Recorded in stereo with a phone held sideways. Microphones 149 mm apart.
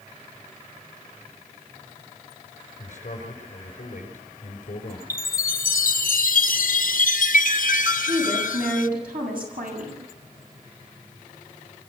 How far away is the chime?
About 0.6 m.